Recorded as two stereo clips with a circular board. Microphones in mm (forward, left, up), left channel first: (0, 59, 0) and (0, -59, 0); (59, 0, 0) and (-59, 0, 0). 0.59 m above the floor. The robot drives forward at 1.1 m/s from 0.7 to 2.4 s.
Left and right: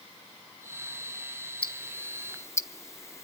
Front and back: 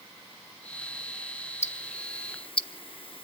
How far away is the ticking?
About 1.3 m.